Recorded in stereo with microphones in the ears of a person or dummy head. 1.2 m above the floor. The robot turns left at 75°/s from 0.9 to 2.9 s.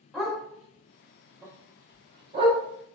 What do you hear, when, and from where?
0.1 s a dog barking: centre (ahead or behind), 0.6 m; by 2.6 s 20° right (ahead or behind), 0.6 m